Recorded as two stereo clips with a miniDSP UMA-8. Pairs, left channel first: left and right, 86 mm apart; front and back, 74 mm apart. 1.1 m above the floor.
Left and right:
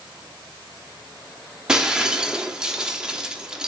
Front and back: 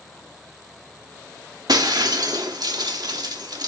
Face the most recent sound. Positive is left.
turn(degrees=-170)